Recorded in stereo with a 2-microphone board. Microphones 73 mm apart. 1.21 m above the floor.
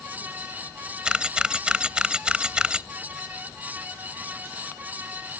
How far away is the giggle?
No giggle in this recording.